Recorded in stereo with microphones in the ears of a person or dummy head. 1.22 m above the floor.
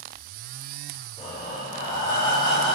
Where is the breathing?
30° left (ahead or behind), 3.5 m.